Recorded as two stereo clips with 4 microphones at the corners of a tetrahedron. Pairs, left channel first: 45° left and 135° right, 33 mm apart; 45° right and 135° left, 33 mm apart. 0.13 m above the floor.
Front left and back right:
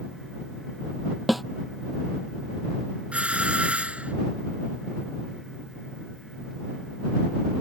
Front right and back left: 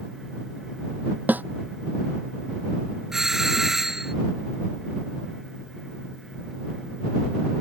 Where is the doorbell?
150° right.